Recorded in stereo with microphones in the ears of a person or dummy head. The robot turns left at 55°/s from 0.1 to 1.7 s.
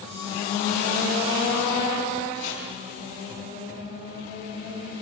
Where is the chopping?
70° left (ahead or behind), 9.5 m.